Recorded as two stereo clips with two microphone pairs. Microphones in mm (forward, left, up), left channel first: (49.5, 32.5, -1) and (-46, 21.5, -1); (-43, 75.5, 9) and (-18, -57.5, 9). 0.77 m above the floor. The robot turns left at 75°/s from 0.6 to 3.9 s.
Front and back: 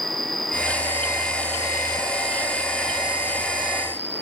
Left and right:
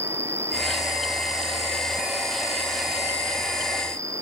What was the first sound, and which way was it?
An insect, 140° left.